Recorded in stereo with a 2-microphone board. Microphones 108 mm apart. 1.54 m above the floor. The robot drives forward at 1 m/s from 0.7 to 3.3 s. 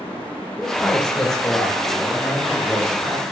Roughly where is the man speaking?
Centre.